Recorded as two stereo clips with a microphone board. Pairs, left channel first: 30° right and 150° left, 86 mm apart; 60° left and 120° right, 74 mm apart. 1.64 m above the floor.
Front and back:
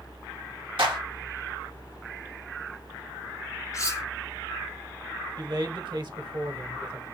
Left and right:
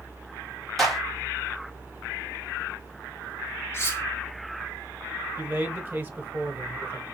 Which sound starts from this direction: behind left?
A clap, at 0.8 s.